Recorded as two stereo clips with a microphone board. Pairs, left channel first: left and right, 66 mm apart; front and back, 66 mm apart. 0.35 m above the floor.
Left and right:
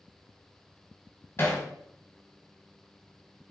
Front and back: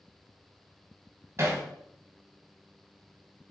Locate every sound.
1.4 s hammering: 135° left, 2.5 m